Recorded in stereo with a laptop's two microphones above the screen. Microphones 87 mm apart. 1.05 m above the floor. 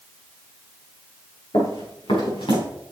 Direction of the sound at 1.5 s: 70° left (ahead or behind).